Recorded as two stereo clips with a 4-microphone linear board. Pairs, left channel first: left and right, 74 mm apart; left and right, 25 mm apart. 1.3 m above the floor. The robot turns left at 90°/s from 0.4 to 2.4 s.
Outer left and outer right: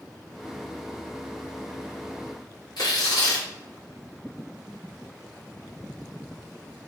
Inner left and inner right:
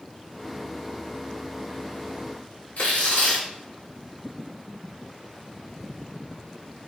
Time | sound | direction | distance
2.8 | tearing paper | 65° left (ahead or behind) | 1.7 m